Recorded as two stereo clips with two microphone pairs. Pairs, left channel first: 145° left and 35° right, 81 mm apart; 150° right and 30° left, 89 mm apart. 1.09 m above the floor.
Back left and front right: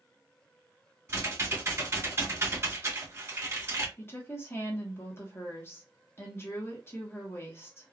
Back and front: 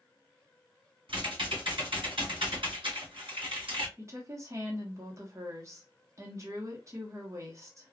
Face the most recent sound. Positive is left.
turn(degrees=85)